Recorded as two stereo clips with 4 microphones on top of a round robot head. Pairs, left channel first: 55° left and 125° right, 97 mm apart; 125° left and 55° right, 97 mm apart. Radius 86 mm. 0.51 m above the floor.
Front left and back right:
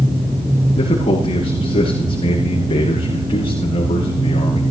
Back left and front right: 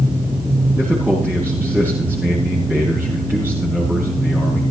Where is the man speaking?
20° left, 8 m.